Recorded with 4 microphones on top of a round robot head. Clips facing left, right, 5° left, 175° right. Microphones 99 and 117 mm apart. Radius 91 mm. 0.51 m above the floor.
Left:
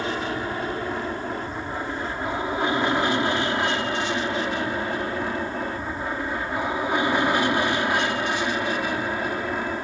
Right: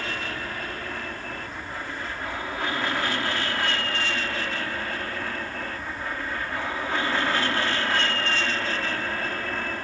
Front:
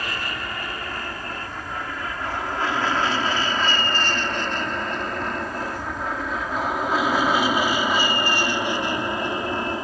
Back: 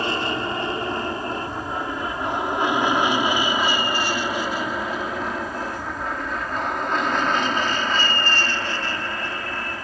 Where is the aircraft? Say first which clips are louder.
Left 6 dB, back 6 dB; 145° left; by 9.8 s 35° left.